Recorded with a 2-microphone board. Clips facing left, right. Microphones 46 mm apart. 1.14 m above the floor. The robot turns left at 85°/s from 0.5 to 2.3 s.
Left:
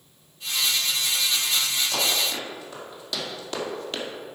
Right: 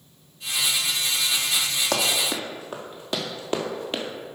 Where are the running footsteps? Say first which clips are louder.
Right 4 dB; 60° right (ahead or behind), 2.5 m; by 4.0 s 20° right (ahead or behind), 1.5 m.